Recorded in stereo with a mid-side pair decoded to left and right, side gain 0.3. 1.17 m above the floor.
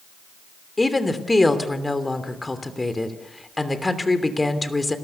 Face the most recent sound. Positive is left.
turn(degrees=25)